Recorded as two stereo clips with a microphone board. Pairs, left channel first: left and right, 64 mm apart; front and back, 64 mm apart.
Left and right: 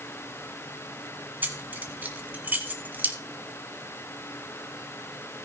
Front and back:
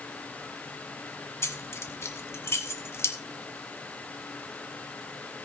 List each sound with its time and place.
1.4 s keys jangling: 35° right, 1.6 m